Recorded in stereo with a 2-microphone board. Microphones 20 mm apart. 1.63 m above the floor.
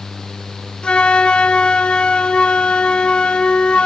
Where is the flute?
65° left (ahead or behind), 1.6 m.